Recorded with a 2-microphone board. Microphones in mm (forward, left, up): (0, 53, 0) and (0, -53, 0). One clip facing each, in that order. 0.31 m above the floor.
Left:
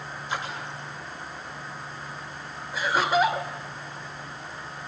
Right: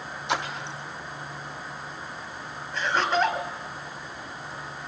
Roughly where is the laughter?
Centre.